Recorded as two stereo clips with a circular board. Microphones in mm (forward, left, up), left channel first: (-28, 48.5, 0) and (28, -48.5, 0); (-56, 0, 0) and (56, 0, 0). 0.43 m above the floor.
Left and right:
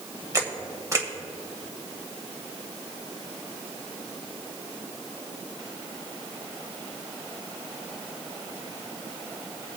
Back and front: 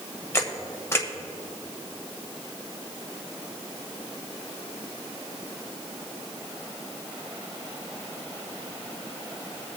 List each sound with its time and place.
0.3 s a camera shutter: 115° right, 1.4 m